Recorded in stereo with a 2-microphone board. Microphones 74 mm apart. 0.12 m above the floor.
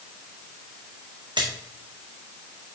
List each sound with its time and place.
1.4 s a splash: 80° right, 1.7 m